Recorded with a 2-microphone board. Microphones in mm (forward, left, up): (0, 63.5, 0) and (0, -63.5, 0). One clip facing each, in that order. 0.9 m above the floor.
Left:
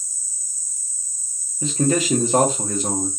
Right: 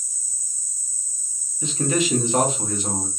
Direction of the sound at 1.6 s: 40° left (ahead or behind).